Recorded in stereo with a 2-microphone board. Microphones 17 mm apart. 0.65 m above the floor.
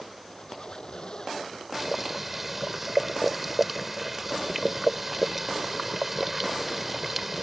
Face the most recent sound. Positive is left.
turn(degrees=-10)  # may be behind; listen again after turning